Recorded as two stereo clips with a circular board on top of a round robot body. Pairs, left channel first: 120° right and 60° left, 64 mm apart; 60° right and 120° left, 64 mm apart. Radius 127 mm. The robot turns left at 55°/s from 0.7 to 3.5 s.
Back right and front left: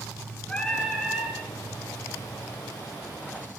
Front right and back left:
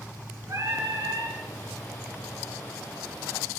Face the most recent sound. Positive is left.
turn(degrees=10)